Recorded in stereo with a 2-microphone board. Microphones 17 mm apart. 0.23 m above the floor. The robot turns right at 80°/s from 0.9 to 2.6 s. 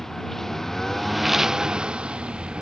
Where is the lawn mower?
160° left; by 2.6 s 60° right.